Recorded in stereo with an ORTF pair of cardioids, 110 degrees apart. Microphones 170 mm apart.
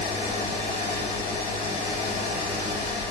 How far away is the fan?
About 0.9 m.